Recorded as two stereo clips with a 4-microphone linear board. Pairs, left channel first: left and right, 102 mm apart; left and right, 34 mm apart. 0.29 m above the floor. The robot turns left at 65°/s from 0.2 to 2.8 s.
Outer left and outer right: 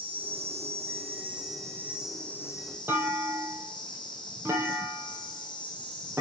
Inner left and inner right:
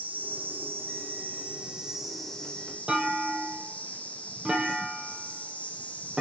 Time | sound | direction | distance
0.0 | an insect | 55° right | 3 m
2.9 | a clunk | 20° right (ahead or behind) | 1.7 m